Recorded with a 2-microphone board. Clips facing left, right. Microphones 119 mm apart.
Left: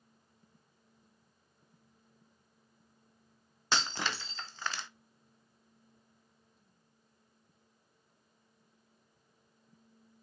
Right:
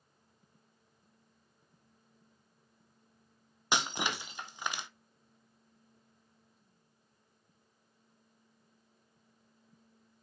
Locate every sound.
3.7 s breaking glass: 15° right (ahead or behind), 0.6 m